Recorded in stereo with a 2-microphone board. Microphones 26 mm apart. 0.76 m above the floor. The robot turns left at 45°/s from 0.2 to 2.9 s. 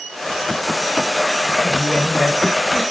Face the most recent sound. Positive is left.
turn(degrees=0)